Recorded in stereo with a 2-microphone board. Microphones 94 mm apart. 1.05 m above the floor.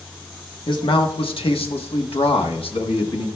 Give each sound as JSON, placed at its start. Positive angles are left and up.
{"t": 0.7, "sound": "a man speaking", "side_deg": 60, "distance_m": 1.6}